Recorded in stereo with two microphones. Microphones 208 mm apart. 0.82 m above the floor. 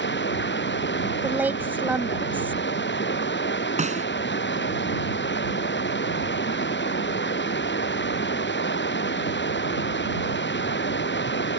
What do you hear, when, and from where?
0.0 s running water: 65° left (ahead or behind)
1.2 s a woman speaking: 10° right (ahead or behind)
3.8 s a snare drum: 35° right (ahead or behind)